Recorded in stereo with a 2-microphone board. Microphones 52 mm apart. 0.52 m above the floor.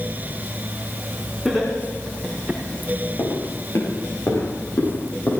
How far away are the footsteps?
About 7.5 m.